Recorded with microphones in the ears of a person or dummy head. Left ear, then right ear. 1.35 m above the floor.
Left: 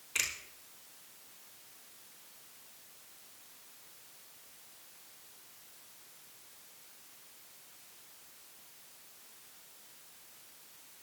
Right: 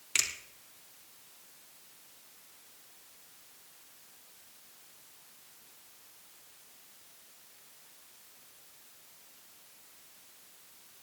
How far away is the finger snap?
About 3 m.